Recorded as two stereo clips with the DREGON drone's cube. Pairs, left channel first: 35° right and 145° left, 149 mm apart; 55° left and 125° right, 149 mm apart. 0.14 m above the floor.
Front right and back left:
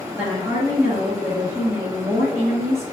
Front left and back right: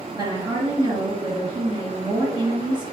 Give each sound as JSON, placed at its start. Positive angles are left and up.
{"t": 0.1, "sound": "a woman speaking", "azimuth_deg": -155, "distance_m": 1.9}